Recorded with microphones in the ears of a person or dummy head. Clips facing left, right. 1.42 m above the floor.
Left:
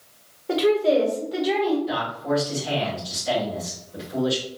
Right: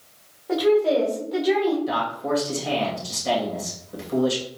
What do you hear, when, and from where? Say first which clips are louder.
0.5 s a woman speaking: even; 40° left (ahead or behind), 1.7 m; by 1.8 s 10° right (ahead or behind), 1.9 m
1.9 s a man speaking: even; 65° right (ahead or behind), 2.5 m